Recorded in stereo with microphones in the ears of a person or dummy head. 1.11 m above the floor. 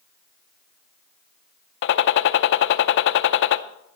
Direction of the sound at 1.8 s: 60° left (ahead or behind).